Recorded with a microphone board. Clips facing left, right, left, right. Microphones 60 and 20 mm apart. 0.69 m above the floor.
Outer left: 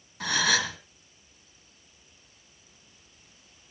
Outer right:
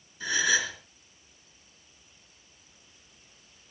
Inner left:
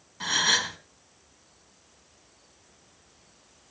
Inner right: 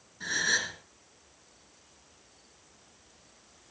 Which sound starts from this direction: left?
A gasp, at 0.2 s.